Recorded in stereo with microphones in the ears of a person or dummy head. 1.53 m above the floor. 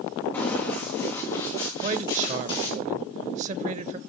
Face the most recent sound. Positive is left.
turn(degrees=-35)  # may be behind; listen again after turning